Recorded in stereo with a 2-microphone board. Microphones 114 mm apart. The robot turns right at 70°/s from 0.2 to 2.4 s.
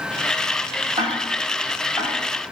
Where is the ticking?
45° right (ahead or behind), 1.3 m; by 2.1 s 35° left (ahead or behind), 1.3 m.